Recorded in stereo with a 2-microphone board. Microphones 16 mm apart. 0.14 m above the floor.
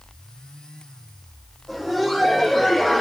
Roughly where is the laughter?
Centre.